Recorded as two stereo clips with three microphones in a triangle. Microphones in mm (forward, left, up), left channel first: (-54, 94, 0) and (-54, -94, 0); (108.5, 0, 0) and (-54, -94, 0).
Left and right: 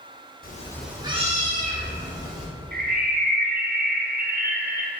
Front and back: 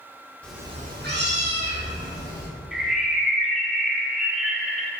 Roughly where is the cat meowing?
Left.